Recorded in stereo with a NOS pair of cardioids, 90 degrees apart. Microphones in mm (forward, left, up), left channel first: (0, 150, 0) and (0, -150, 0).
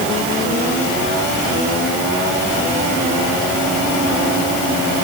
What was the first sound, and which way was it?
Only background noise.